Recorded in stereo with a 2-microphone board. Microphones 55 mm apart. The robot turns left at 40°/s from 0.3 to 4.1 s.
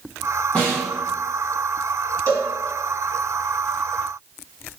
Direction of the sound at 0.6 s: 20° left (ahead or behind).